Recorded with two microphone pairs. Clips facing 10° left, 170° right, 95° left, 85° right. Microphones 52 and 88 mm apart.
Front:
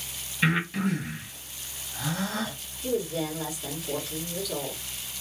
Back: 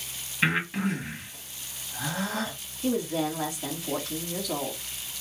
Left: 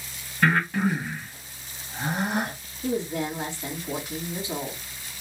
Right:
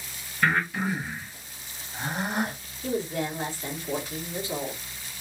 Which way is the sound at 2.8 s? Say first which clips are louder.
Back 2 dB, left 1 dB; 165° left.